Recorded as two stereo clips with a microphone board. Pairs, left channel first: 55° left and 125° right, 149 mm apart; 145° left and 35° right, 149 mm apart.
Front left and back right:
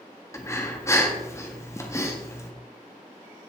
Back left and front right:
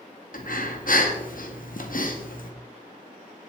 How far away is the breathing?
About 1.6 m.